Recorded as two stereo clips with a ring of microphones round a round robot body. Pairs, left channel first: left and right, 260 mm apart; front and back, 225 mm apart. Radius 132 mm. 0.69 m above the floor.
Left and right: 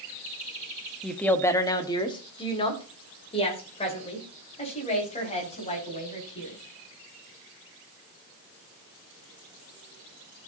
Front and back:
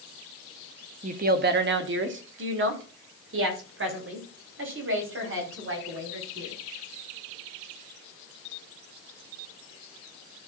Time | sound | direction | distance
1.0 | a woman speaking | straight behind | 0.8 m